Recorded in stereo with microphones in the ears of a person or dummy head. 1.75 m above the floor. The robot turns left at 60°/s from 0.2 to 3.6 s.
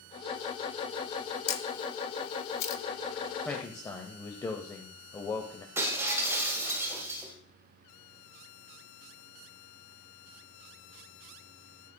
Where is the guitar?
I don't hear a guitar.